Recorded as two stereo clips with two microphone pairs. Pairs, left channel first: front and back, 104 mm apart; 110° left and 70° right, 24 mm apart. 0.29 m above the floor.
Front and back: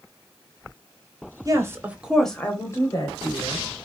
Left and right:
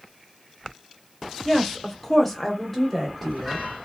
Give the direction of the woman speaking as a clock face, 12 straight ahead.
6 o'clock.